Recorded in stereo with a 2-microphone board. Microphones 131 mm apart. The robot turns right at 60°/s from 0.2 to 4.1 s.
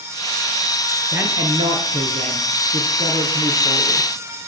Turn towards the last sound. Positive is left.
turn(degrees=15)